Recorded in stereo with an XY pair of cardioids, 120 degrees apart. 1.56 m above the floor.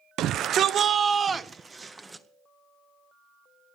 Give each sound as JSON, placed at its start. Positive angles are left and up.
{"t": 0.2, "sound": "a shout", "azimuth_deg": -70, "distance_m": 0.9}